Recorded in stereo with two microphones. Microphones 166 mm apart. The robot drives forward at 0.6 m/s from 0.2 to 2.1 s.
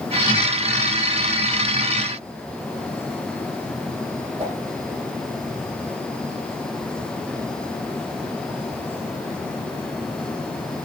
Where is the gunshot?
I don't hear a gunshot.